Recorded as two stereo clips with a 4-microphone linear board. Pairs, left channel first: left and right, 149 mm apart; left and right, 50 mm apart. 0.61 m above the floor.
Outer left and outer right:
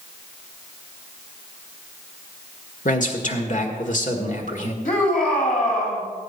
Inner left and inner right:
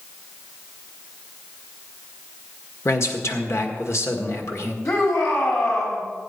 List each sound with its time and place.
2.9 s a man speaking: 60° left (ahead or behind), 1.6 m
4.8 s a shout: 70° left (ahead or behind), 3 m